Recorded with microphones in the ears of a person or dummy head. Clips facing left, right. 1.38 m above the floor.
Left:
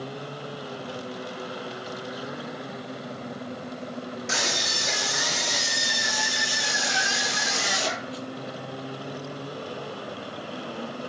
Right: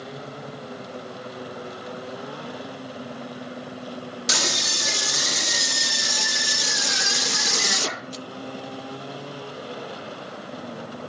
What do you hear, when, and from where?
4.3 s a scream: 55° right (ahead or behind), 4 m; by 8.2 s 65° right (ahead or behind), 2 m